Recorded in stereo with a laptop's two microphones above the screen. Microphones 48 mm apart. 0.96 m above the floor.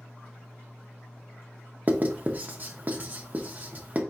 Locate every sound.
1.9 s writing: 35° right (ahead or behind), 0.6 m